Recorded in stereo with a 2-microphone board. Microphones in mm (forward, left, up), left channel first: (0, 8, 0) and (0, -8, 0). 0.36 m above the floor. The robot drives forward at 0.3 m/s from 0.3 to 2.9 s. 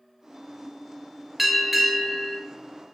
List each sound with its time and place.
1.4 s a bell: 10° right (ahead or behind), 0.9 m